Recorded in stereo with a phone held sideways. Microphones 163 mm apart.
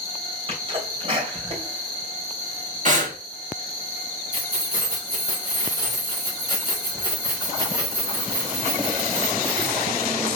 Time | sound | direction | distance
0.5 | a sneeze | 35° right (ahead or behind) | 3 m
2.9 | breathing | 50° right (ahead or behind) | 1.6 m
4.3 | keys jangling | 25° right (ahead or behind) | 3 m